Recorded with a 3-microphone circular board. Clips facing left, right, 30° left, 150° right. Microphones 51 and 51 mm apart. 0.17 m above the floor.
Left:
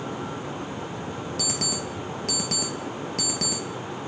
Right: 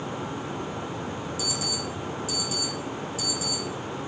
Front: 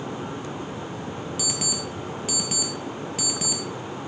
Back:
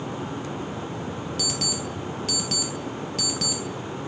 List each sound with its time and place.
1.4 s an alarm clock: 110° left, 2 m